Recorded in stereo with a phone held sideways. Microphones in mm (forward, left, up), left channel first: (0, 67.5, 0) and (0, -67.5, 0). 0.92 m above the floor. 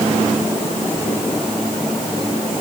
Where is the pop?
I don't hear a pop.